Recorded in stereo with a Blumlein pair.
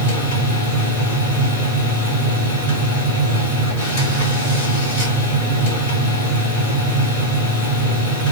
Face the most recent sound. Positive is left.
turn(degrees=55)